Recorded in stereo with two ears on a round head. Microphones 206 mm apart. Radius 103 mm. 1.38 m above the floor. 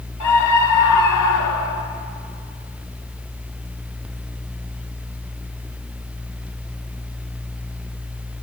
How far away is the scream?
About 4 m.